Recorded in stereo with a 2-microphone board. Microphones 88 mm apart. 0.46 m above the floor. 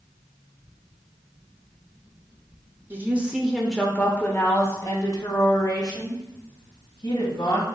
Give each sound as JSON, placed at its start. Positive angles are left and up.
{"t": 2.9, "sound": "a woman speaking", "side_deg": -25, "distance_m": 1.0}